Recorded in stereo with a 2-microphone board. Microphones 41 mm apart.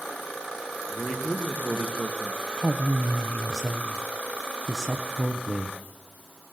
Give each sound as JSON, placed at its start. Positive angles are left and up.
{"t": 0.9, "sound": "a man speaking", "side_deg": 15, "distance_m": 2.5}
{"t": 2.6, "sound": "a woman speaking", "side_deg": 5, "distance_m": 0.8}